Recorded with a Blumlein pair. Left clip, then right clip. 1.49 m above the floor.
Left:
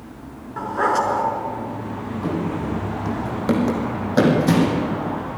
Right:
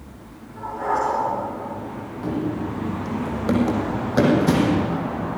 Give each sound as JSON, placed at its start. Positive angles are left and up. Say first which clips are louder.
{"t": 0.6, "sound": "a dog barking", "louder": "left 4 dB", "azimuth_deg": 35, "distance_m": 5.0}
{"t": 2.2, "sound": "running footsteps", "louder": "left 1 dB", "azimuth_deg": 5, "distance_m": 4.5}